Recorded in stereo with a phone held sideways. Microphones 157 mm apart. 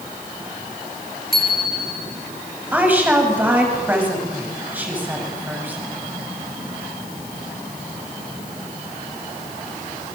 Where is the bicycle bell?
75° right (ahead or behind), 5.5 m.